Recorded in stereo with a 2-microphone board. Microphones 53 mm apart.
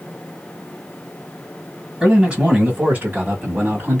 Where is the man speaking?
15° right (ahead or behind), 1.6 m; by 4.0 s 45° right (ahead or behind), 1.8 m.